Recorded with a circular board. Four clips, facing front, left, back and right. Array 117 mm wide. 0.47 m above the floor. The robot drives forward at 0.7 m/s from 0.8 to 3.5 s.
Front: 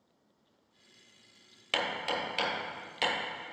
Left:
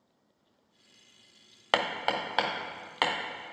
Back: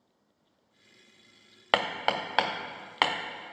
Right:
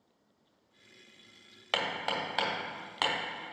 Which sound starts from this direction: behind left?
Hammering, at 1.7 s.